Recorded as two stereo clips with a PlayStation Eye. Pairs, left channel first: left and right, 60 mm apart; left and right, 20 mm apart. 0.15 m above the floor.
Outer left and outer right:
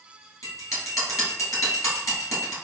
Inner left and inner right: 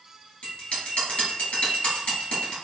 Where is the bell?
60° left (ahead or behind), 1.6 m.